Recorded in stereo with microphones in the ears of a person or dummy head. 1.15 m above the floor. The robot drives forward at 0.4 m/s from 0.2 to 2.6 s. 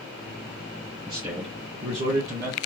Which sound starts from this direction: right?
A man speaking, at 1.1 s.